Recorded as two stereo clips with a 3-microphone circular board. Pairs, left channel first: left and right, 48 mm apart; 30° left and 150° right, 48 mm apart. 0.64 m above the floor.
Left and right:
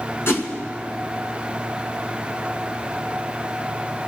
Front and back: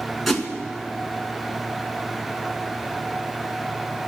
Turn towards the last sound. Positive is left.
turn(degrees=120)